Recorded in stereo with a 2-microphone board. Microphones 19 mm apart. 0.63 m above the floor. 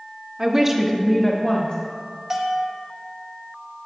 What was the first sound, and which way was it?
A woman speaking, 30° right (ahead or behind).